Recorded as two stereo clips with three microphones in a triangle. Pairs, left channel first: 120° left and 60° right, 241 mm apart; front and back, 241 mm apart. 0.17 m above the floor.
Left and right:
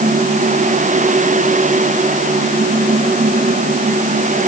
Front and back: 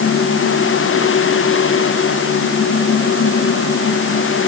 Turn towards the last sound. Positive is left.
No sound to turn to.